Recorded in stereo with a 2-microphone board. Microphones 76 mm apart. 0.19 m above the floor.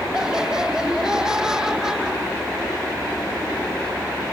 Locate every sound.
0.1 s laughter: 10° right (ahead or behind)